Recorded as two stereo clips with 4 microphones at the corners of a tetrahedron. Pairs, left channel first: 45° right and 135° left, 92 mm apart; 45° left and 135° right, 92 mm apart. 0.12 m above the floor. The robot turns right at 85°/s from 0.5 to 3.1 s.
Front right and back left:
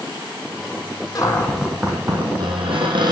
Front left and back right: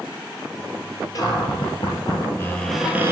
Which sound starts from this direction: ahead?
A cupboard door, at 1.1 s.